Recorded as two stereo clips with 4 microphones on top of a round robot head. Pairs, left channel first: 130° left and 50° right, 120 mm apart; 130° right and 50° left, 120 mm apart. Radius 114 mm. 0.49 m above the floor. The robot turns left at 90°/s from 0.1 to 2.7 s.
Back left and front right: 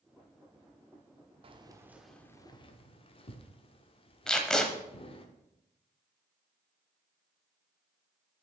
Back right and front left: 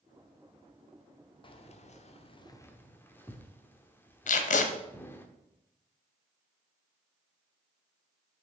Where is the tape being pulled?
145° right, 0.9 m.